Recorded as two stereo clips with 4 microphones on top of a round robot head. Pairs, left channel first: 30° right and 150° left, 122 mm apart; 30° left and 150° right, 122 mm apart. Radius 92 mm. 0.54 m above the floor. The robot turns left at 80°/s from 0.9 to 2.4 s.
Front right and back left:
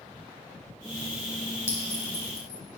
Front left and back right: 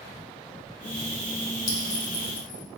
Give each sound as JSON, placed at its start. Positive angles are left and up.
{"t": 1.7, "sound": "a clink", "azimuth_deg": 40, "distance_m": 2.5}